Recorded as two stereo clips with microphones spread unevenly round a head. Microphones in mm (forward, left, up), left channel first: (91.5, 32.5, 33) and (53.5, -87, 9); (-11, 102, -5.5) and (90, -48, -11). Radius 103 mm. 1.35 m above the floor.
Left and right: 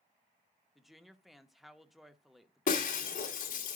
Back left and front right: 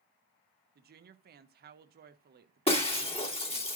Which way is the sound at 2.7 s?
65° left.